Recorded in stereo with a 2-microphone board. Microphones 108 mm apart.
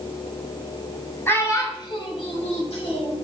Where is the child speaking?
20° left (ahead or behind), 1.4 m; by 3.1 s 55° left (ahead or behind), 1.6 m.